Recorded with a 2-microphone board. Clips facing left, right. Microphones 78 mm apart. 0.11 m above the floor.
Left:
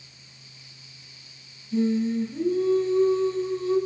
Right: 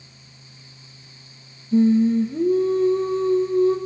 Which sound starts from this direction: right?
Singing, at 1.7 s.